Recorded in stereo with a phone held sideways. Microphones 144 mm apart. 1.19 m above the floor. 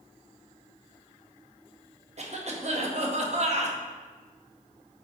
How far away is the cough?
About 0.7 m.